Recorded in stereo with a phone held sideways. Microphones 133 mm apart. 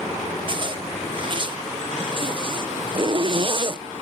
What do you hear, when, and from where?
0.5 s a zipper: 40° right (ahead or behind)